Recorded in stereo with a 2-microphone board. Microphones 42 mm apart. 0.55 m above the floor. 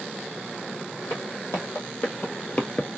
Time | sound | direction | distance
1.1 | footsteps | 65° left (ahead or behind) | 1.8 m